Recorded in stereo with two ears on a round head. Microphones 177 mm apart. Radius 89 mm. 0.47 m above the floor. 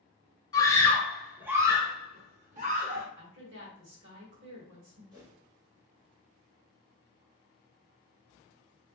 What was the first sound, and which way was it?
A scream, 20° left (ahead or behind).